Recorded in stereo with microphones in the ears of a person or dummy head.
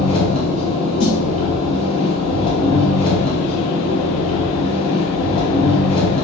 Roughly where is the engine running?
Left.